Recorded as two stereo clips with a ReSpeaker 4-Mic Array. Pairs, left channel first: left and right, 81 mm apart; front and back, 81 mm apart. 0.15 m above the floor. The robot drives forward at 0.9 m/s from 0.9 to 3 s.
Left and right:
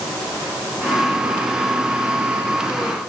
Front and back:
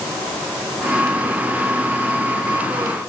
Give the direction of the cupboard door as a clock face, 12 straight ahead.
I don't hear a cupboard door.